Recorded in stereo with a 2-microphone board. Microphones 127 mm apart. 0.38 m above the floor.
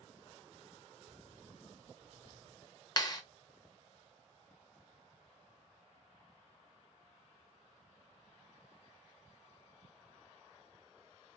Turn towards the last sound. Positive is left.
turn(degrees=30)  # may be behind; listen again after turning